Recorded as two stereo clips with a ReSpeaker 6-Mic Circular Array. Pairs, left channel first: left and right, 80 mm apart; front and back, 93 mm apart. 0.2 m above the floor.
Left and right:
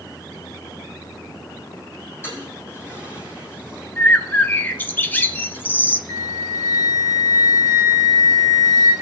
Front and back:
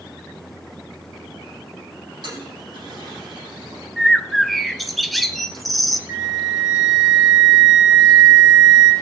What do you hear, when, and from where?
2.2 s a toilet flushing: 150° left, 6 m
4.0 s a bird: 90° left, 0.6 m
6.1 s a flute: 125° left, 2 m